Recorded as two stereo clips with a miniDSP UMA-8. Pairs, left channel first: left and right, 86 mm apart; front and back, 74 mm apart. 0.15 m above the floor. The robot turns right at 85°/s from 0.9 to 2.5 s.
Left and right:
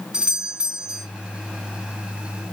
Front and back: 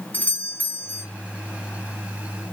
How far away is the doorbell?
About 2 m.